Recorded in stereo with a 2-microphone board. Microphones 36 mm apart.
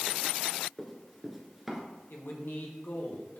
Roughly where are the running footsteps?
Centre.